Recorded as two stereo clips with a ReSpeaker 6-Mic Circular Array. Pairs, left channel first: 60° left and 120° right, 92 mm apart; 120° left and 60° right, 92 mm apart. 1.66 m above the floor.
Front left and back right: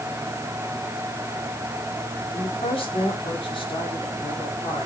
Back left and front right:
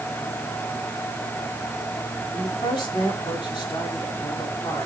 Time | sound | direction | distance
2.3 | a woman speaking | 80° left | 3.5 m